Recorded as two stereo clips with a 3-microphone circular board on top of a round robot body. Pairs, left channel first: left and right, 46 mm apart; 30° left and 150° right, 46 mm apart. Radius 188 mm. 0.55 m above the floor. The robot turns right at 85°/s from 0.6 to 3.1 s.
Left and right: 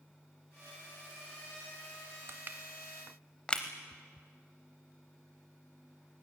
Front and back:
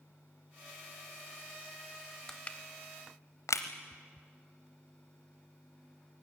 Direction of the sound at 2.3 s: 50° right.